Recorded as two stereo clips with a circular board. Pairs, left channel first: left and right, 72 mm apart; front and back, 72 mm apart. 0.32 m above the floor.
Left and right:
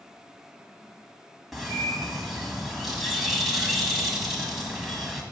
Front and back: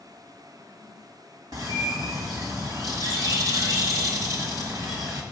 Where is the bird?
175° right, 1.6 m.